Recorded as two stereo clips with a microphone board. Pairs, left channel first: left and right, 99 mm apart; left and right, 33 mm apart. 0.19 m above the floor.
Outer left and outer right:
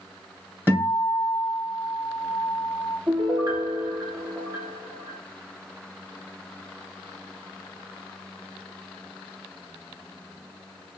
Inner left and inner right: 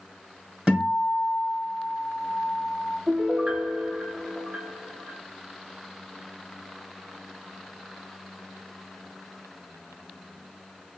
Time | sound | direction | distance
0.7 | a guitar | 20° right (ahead or behind) | 2.5 m
3.1 | a piano | 40° right (ahead or behind) | 1.9 m